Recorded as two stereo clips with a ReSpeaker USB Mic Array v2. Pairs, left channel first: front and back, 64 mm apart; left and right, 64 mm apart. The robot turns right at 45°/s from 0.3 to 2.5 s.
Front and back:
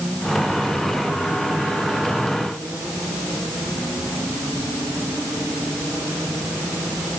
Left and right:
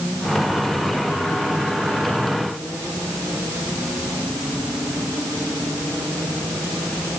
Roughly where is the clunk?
No clunk in this recording.